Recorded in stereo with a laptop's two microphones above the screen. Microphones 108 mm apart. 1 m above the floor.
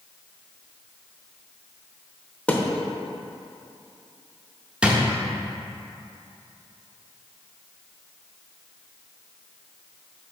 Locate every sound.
2.5 s a thud: 10° left (ahead or behind), 0.8 m
4.8 s a drawer: 10° right (ahead or behind), 0.5 m